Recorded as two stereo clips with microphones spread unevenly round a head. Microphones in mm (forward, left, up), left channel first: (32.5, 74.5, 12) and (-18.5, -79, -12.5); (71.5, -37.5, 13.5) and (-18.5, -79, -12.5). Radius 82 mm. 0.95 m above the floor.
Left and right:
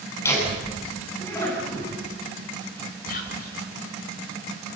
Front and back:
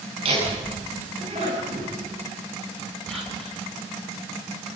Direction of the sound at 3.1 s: 110° left.